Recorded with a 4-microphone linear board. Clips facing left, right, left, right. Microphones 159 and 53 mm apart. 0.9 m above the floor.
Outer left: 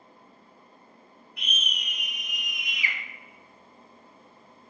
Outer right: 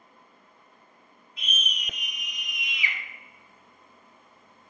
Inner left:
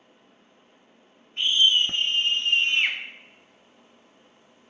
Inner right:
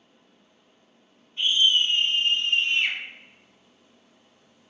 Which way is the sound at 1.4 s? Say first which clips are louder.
Outer right 1 dB, inner left 1 dB; 65° left (ahead or behind).